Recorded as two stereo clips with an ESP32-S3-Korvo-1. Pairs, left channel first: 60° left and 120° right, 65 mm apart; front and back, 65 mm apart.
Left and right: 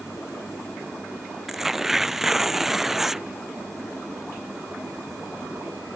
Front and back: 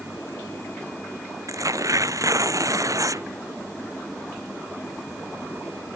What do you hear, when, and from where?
1.5 s tearing paper: 155° left